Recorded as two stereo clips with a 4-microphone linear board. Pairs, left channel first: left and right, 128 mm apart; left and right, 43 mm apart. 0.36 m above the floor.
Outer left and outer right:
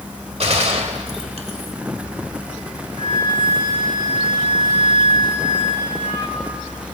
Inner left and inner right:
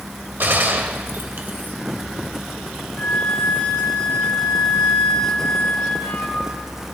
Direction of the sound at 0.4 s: 50° right (ahead or behind).